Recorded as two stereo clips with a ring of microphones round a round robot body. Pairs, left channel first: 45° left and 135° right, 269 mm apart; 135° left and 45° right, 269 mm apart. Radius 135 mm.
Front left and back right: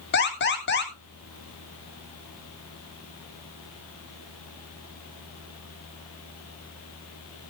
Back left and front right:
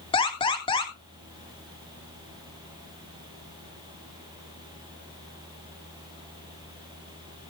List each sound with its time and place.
0.1 s an alarm: 70° left, 2 m